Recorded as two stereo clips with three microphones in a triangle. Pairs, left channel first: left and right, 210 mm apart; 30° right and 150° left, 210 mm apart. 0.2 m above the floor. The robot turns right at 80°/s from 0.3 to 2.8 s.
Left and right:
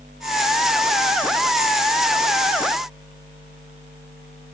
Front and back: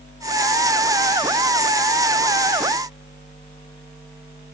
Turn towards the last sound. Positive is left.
No sound to turn to.